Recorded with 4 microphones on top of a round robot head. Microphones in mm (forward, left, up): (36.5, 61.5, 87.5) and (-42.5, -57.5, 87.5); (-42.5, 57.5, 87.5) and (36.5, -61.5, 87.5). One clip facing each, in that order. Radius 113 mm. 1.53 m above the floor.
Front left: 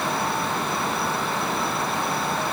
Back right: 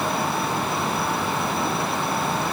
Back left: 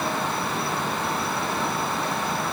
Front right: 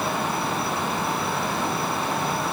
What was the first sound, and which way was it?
Only background noise.